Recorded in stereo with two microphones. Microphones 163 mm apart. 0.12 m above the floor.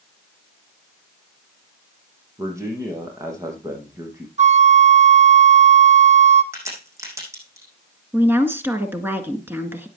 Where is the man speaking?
20° right (ahead or behind), 5 m.